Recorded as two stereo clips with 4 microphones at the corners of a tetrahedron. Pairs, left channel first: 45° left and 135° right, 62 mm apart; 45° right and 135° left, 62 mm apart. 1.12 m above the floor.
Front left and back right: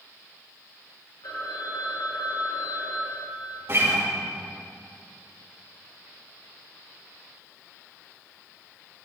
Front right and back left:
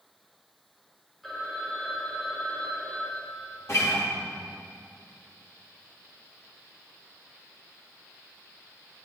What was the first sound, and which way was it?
A phone ringing, 45° left.